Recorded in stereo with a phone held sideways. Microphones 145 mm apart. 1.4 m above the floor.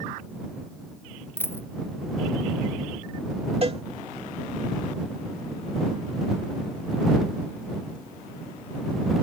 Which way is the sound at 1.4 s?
15° left (ahead or behind).